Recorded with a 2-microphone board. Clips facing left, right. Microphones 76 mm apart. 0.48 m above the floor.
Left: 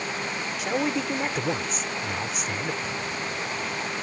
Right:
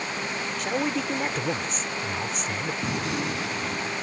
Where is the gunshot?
80° right.